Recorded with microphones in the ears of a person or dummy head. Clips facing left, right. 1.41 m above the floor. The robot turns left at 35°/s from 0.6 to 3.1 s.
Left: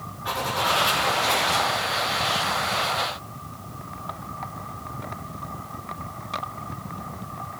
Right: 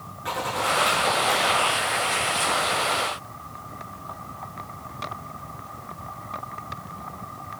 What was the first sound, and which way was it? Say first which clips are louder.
A zipper: even; 135° right.